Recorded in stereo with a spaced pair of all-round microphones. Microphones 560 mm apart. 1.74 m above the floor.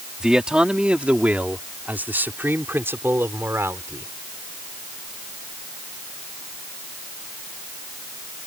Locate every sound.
0.2 s a man speaking: centre (ahead or behind); by 4.1 s 5° right (ahead or behind)